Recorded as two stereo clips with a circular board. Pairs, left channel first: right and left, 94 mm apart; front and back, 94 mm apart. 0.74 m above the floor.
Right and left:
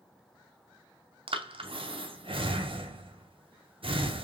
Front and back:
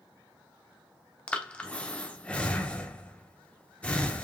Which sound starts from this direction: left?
Breathing, at 1.3 s.